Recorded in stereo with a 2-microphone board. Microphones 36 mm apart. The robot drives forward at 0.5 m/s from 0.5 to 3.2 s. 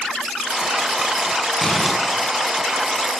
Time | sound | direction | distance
1.6 | crumpling | 5° right (ahead or behind) | 7.5 m